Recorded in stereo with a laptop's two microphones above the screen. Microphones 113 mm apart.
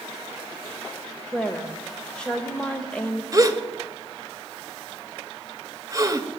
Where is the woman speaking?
10° left (ahead or behind), 0.8 m.